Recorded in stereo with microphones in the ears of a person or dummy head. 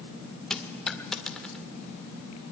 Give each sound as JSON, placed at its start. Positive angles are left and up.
{"t": 0.5, "sound": "a dropped coin", "side_deg": 5, "distance_m": 1.6}